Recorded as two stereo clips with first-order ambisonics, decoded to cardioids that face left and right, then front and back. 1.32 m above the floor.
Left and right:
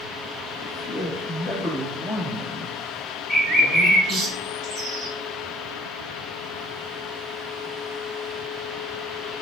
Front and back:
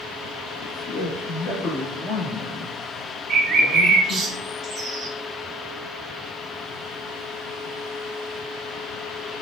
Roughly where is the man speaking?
Ahead left.